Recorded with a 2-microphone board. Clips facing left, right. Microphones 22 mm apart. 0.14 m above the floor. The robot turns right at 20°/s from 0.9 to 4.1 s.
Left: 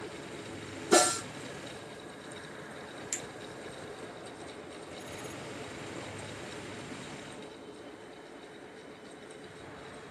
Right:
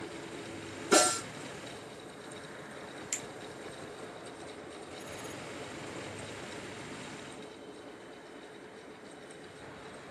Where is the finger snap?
Centre (ahead or behind), 1.2 m.